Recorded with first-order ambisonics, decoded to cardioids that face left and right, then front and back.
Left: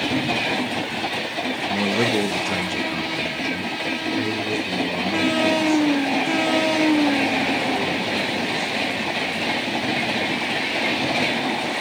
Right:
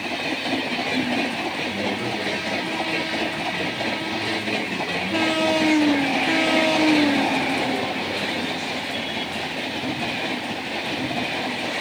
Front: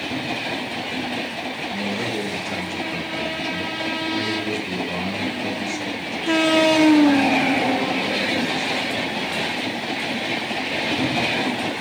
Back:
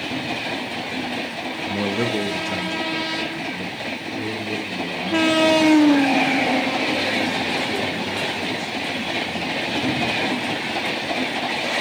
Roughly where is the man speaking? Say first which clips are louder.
Left 4 dB, back 5 dB; behind left.